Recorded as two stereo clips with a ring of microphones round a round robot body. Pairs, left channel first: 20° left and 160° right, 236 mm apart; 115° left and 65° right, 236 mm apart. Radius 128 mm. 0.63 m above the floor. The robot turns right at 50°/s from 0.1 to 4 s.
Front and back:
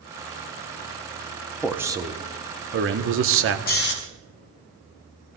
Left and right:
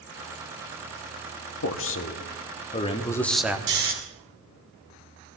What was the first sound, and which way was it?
A man speaking, 115° left.